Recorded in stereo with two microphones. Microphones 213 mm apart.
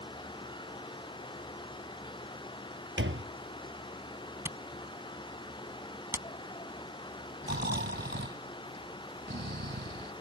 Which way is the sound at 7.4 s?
55° right (ahead or behind).